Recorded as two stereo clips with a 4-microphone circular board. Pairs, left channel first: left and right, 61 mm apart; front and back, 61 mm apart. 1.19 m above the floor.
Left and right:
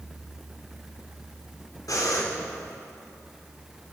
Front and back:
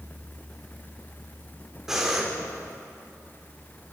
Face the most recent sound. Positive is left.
turn(degrees=100)